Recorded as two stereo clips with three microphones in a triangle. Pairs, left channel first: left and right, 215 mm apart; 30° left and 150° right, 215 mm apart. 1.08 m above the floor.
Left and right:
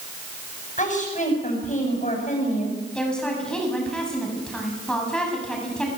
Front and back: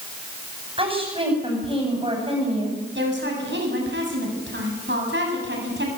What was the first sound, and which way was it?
A woman speaking, 145° left.